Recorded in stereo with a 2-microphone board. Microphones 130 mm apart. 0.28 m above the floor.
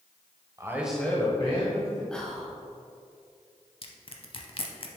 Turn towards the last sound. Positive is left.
turn(degrees=45)  # may be behind; listen again after turning